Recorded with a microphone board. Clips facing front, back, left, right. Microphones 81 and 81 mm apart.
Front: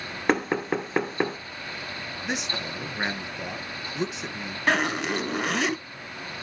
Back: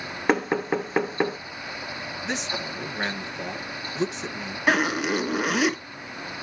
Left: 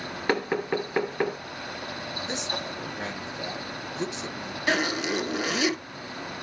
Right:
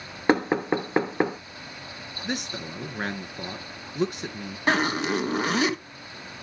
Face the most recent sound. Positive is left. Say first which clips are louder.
# back 2 dB, right 3 dB
turn(degrees=-100)